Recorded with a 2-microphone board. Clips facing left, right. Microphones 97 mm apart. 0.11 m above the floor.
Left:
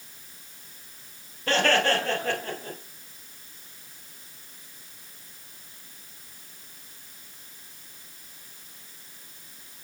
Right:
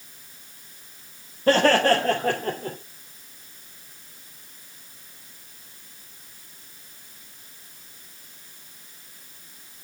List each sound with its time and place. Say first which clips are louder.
1.5 s laughter: right 5 dB; 35° right (ahead or behind), 2.5 m; by 2.8 s 50° right (ahead or behind), 2.5 m